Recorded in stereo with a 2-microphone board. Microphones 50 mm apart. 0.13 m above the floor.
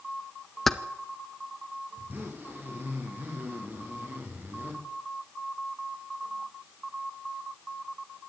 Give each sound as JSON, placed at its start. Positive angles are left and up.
{"t": 0.7, "sound": "keys jangling", "side_deg": 0, "distance_m": 1.0}
{"t": 2.0, "sound": "a zipper", "side_deg": -40, "distance_m": 8.0}